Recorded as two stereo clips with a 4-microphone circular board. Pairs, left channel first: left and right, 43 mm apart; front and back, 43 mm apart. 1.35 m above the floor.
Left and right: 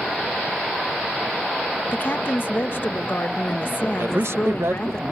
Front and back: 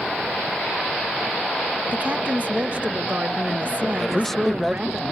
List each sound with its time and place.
1.9 s a woman speaking: 125° left
4.0 s a man speaking: 85° right